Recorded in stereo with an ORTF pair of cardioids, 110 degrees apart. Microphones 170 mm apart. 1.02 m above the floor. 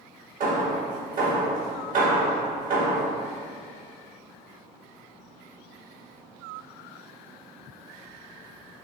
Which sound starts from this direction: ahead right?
Hammering, at 0.4 s.